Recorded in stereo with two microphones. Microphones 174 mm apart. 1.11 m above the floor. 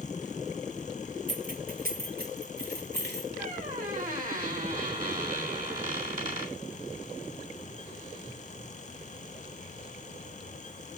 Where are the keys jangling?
50° right (ahead or behind), 1.3 m; by 3.3 s 75° right (ahead or behind), 2.5 m.